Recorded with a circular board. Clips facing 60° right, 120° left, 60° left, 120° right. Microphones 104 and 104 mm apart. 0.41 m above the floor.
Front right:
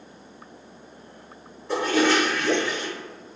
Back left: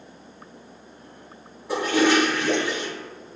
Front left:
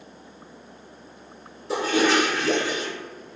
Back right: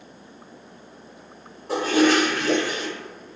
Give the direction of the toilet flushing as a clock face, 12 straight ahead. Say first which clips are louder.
Back left 1 dB, back right 3 dB; 5 o'clock.